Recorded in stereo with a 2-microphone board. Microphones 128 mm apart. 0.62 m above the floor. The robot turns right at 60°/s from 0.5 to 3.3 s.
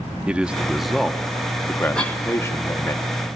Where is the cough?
5° left (ahead or behind), 1.9 m; by 2.2 s 25° left (ahead or behind), 1.9 m.